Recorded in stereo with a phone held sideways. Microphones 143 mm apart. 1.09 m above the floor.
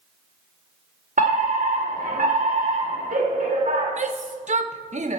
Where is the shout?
55° right (ahead or behind), 0.9 m.